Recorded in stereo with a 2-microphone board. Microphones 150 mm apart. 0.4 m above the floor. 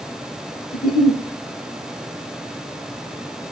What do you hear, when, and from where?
0.7 s a giggle: 60° left (ahead or behind), 6 m